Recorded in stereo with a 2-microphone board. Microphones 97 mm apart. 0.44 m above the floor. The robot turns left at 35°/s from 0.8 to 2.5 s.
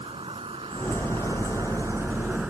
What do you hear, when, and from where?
0.0 s an insect: 110° right; by 2.5 s 170° right